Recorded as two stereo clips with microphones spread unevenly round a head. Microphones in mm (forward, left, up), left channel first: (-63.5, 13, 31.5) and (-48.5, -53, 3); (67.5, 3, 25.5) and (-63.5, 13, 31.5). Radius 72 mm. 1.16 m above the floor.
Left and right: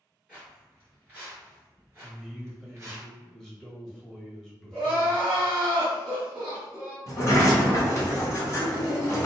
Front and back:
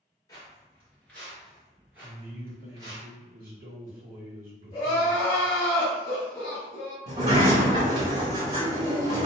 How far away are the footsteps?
About 1.2 m.